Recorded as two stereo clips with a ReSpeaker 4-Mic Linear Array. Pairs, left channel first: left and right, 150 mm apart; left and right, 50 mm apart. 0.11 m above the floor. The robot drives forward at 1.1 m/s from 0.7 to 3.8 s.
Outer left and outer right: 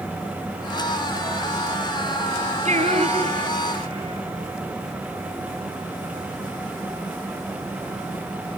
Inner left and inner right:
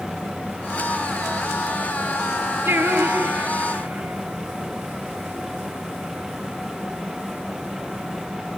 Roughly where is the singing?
Right.